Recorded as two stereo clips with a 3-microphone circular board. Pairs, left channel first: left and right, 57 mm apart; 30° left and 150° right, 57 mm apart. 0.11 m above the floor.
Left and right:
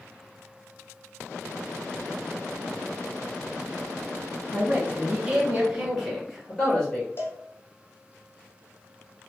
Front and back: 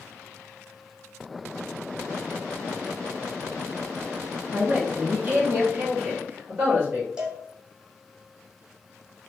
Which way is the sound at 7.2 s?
135° left.